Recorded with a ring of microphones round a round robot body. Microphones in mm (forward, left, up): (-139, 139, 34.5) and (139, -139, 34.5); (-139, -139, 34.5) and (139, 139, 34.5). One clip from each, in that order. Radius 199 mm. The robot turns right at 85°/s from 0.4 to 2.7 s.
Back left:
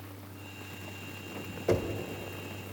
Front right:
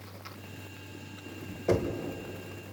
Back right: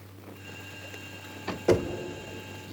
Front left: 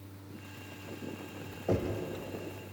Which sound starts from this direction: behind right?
Knocking, at 1.7 s.